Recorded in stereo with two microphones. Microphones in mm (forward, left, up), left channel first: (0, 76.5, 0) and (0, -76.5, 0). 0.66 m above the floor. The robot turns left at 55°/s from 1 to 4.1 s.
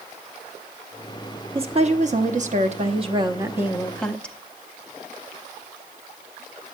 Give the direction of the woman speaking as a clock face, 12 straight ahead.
2 o'clock.